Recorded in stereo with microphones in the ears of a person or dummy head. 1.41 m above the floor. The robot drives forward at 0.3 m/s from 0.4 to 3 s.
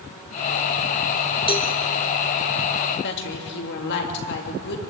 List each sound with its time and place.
1.5 s a cowbell: 25° left (ahead or behind), 1.1 m; by 1.7 s 20° left (ahead or behind), 1.2 m
3.0 s a woman speaking: 60° left (ahead or behind), 3 m